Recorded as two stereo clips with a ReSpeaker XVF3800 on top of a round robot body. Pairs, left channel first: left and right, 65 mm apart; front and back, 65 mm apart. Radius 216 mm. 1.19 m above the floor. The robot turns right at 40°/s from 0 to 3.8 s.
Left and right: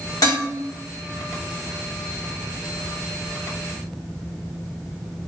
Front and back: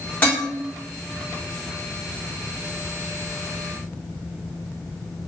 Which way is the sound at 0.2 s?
65° left.